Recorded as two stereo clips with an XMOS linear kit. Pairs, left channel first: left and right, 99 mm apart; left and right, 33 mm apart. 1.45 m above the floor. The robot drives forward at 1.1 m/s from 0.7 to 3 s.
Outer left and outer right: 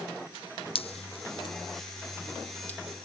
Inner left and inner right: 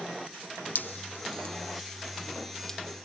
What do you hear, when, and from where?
0.8 s dripping: 65° left (ahead or behind); by 2.8 s 20° left (ahead or behind)